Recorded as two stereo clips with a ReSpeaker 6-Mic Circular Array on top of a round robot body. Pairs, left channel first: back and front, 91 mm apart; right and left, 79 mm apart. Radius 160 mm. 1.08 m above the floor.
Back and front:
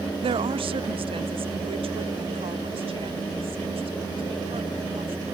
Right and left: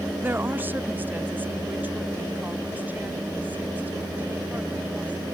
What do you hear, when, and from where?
0.2 s a woman speaking: 20° left